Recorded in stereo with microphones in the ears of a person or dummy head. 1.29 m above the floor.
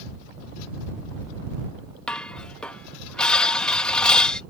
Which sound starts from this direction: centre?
Dishes clattering, at 2.1 s.